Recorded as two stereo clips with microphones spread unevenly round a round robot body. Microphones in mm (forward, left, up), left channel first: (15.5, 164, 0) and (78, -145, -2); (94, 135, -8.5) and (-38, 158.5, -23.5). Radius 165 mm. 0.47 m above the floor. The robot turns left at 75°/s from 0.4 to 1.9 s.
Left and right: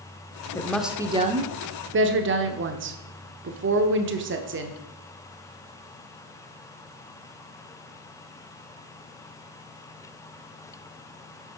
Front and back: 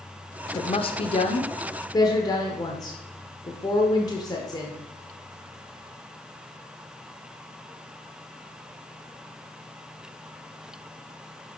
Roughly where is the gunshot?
I don't hear a gunshot.